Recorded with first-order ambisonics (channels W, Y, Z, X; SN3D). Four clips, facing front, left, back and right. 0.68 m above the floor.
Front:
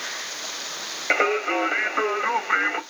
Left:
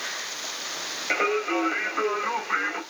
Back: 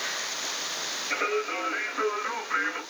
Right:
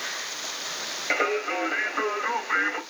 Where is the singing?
Straight ahead, 1.3 m.